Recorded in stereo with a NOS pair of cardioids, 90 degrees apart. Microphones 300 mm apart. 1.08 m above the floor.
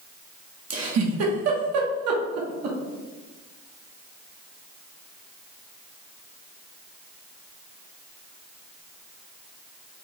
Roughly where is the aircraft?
No aircraft in this recording.